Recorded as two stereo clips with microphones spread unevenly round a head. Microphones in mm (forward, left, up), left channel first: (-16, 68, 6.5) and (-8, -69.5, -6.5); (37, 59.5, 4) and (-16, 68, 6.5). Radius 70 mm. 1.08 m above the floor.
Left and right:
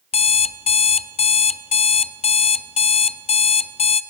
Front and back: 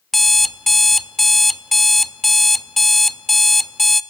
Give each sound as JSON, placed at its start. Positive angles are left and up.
{"t": 0.1, "sound": "an alarm clock", "azimuth_deg": 80, "distance_m": 0.6}